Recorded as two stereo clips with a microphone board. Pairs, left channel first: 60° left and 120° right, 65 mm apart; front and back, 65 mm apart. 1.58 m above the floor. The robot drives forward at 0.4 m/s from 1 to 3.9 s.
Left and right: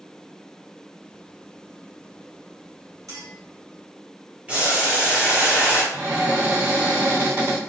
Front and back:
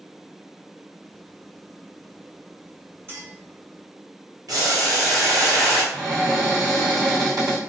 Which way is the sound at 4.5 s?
170° left.